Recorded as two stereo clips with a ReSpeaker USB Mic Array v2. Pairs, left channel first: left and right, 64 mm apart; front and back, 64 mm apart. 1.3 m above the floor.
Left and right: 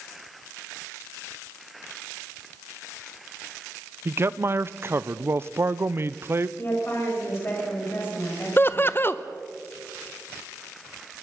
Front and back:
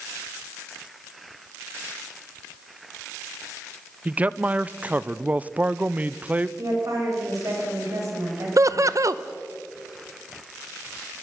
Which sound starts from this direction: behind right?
A man speaking, at 4.0 s.